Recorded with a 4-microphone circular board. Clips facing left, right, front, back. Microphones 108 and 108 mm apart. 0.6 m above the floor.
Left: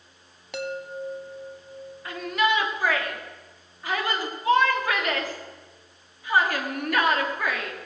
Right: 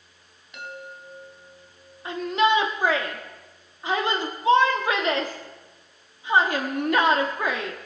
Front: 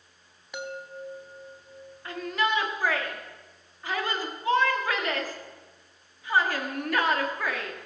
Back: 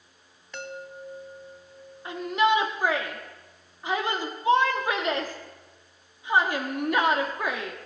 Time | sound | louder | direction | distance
0.5 | a chime | left 7 dB, front 1 dB | 80° left | 0.9 m
2.0 | a shout | right 3 dB, back 5 dB | 130° right | 1.1 m